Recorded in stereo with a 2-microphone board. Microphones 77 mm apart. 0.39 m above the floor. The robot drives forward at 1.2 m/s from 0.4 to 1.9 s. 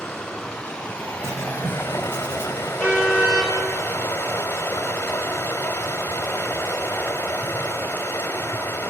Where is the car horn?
15° right (ahead or behind), 3.5 m.